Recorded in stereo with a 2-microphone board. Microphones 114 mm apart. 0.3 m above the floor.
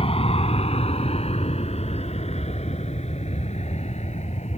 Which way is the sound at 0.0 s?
55° left (ahead or behind).